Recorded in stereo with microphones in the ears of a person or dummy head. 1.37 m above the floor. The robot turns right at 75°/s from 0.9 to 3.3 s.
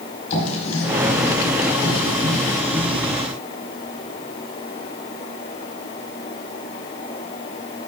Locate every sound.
0.3 s writing: 35° left (ahead or behind), 4.5 m; by 3.0 s 15° right (ahead or behind), 4.5 m